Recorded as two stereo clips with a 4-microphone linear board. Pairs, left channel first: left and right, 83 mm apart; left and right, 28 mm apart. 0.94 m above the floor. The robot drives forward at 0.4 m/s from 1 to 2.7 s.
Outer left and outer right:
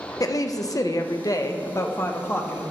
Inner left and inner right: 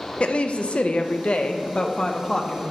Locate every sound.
0.2 s a woman speaking: 45° left (ahead or behind), 0.5 m; by 2.7 s 25° left (ahead or behind), 0.9 m